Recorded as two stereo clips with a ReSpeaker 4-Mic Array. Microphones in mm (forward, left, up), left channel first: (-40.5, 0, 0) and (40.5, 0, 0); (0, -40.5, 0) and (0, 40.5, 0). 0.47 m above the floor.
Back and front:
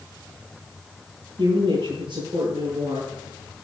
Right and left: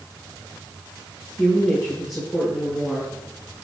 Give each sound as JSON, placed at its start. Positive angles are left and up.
{"t": 1.4, "sound": "a woman speaking", "azimuth_deg": 0, "distance_m": 8.0}